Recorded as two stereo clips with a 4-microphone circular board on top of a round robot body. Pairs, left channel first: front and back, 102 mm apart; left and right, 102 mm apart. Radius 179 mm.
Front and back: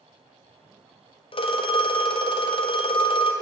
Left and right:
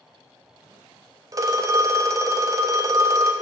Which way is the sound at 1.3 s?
30° right.